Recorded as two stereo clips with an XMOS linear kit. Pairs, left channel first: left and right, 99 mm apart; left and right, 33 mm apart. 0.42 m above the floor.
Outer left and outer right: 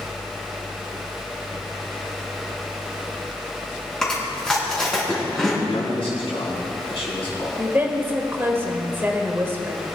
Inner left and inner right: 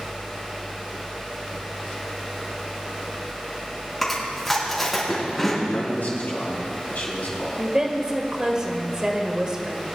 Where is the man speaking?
75° left (ahead or behind), 3.5 m.